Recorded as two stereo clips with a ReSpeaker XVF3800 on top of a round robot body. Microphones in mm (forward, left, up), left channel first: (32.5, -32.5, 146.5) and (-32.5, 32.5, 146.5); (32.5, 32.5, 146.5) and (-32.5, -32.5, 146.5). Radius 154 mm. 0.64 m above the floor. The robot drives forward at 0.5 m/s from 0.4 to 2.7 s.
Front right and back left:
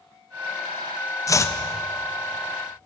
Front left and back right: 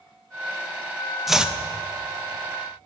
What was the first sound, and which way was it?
Chopping, 50° right.